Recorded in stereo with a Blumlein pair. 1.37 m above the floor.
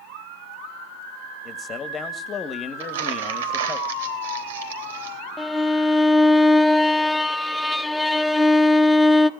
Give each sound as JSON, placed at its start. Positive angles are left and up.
{"t": 1.4, "sound": "a man speaking", "azimuth_deg": 20, "distance_m": 2.0}
{"t": 2.8, "sound": "crumpling", "azimuth_deg": -60, "distance_m": 3.5}
{"t": 5.4, "sound": "a violin", "azimuth_deg": 5, "distance_m": 0.8}